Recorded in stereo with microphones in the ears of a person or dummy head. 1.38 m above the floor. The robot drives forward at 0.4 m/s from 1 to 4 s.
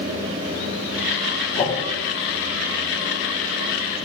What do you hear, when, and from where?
1.6 s a whoosh: 30° left (ahead or behind), 0.8 m; by 1.8 s 35° left (ahead or behind), 0.7 m